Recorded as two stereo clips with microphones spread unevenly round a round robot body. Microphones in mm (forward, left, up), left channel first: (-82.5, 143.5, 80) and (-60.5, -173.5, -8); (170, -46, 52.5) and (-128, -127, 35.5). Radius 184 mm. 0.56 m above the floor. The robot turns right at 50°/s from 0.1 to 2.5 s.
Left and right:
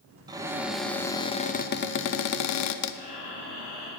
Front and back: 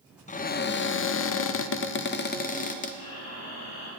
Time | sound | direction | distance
0.3 | a cupboard door | 45° right | 0.5 m
2.9 | breathing | 20° left | 4.5 m